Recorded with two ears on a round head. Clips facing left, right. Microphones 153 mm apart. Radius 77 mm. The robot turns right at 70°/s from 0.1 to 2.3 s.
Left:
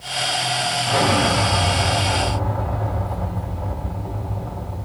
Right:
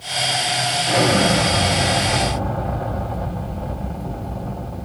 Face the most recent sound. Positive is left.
turn(degrees=-50)